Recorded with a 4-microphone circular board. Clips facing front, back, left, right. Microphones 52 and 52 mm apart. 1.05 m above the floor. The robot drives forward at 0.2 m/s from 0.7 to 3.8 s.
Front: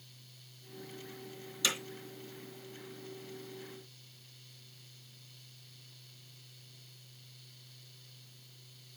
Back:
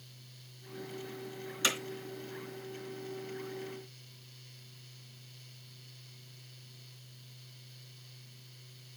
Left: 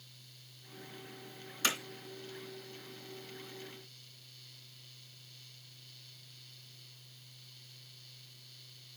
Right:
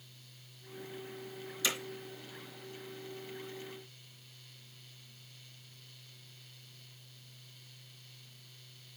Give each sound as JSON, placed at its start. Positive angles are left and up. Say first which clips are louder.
{"t": 1.6, "sound": "hammering", "louder": "back 2 dB, left 2 dB", "azimuth_deg": 130, "distance_m": 3.0}